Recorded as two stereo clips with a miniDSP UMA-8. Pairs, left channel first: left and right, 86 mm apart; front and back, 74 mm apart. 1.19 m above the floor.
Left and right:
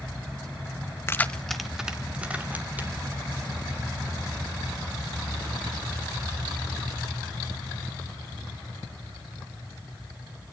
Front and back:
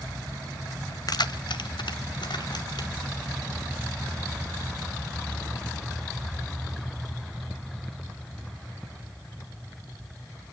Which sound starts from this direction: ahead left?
Keys jangling, at 1.1 s.